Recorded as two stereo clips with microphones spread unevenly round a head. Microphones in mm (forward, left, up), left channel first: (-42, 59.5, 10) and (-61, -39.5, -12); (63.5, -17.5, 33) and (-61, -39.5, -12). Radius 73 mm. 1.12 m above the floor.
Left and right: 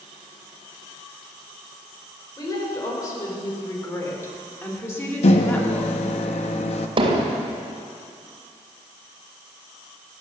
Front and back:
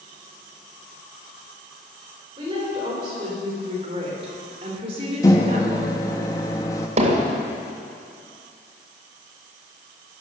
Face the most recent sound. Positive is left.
turn(degrees=-135)